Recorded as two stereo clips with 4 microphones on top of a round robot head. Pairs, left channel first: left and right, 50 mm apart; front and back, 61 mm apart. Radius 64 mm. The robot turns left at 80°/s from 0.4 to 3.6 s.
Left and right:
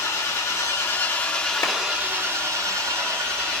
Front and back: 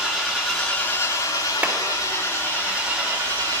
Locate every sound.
0.0 s an engine running: 100° left, 6.5 m; by 3.6 s 155° right, 6.5 m
1.6 s a clap: 120° left, 2.5 m; by 1.7 s 110° left, 2.5 m